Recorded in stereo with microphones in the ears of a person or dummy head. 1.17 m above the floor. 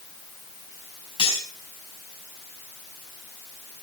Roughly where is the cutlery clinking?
Left.